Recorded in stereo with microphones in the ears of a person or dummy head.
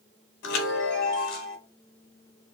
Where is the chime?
65° left (ahead or behind), 0.9 m.